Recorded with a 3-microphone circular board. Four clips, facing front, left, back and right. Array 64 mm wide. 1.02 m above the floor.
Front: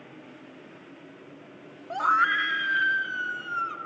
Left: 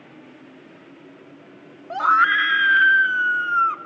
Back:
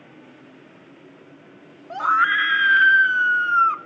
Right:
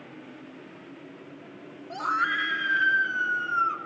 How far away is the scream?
About 0.7 m.